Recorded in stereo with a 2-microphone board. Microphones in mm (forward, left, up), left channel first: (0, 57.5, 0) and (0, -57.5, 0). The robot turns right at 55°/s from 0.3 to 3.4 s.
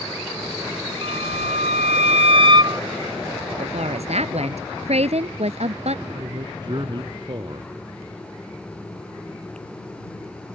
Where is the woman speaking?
65° right (ahead or behind).